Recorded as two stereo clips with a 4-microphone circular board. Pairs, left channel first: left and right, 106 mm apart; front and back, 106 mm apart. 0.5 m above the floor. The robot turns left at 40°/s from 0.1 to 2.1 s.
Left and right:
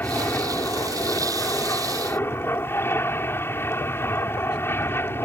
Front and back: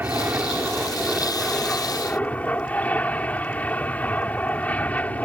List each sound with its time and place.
0.0 s an aircraft: 135° left; by 5.2 s 55° left